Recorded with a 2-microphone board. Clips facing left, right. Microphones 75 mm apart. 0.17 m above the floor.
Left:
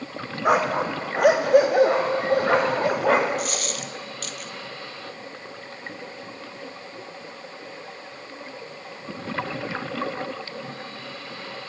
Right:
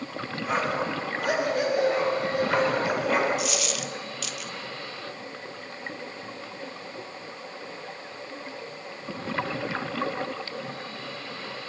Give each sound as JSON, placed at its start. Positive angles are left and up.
{"t": 0.5, "sound": "a dog barking", "side_deg": 75, "distance_m": 2.5}
{"t": 3.4, "sound": "a dropped coin", "side_deg": 45, "distance_m": 1.3}